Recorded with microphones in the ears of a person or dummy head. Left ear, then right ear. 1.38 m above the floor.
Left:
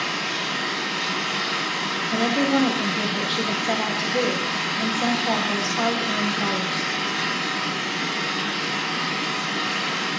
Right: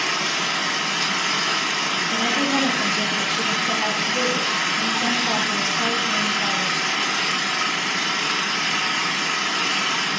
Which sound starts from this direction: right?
An engine running, at 0.0 s.